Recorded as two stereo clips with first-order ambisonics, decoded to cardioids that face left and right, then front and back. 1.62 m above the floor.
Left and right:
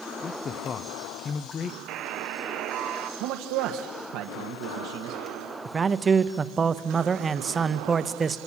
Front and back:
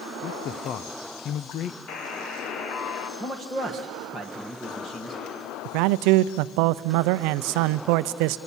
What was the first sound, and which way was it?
A man speaking, 40° left.